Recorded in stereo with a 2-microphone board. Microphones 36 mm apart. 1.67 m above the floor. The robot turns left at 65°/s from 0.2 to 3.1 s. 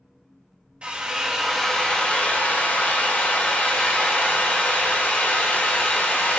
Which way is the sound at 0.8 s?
140° right.